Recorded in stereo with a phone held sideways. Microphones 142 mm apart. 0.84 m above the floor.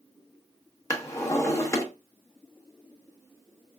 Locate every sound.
0.9 s a drawer: 20° left (ahead or behind), 0.6 m